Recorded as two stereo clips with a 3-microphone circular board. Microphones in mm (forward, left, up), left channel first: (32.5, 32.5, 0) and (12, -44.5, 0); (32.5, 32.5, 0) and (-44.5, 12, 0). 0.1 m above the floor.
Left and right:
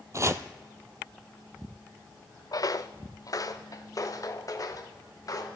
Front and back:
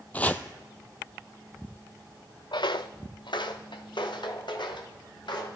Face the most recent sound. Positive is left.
turn(degrees=30)